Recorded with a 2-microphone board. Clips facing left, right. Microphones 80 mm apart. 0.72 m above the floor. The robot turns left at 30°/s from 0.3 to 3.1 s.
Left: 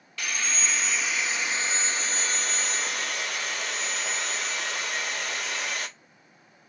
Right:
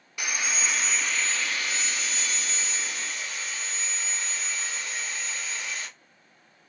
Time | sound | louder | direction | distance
0.2 | sawing | even | 165° right | 0.5 m